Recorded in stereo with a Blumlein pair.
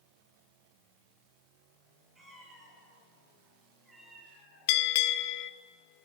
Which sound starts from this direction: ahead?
A cat meowing, at 2.1 s.